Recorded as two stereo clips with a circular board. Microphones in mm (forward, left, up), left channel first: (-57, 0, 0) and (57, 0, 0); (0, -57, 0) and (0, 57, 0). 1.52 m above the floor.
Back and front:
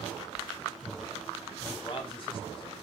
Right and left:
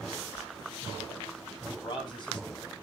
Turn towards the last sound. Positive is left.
turn(degrees=-140)